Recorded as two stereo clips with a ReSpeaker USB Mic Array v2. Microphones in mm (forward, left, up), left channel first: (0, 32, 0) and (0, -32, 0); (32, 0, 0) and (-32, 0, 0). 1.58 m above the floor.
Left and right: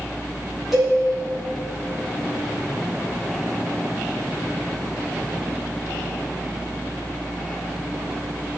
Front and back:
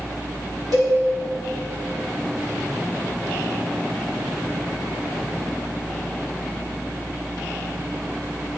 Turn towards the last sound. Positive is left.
turn(degrees=-175)